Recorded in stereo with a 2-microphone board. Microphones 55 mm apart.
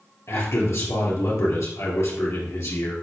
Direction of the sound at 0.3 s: 60° left (ahead or behind).